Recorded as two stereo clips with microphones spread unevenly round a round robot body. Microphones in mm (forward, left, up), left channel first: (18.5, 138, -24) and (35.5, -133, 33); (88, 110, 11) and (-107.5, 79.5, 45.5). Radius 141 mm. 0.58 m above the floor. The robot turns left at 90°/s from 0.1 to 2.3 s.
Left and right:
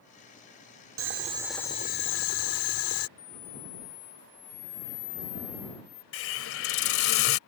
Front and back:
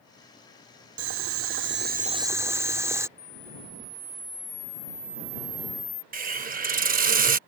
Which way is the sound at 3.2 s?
105° left.